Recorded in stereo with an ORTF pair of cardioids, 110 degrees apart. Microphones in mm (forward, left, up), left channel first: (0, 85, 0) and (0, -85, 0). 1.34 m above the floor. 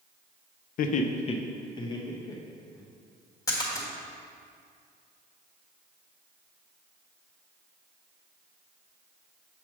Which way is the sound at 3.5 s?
20° left.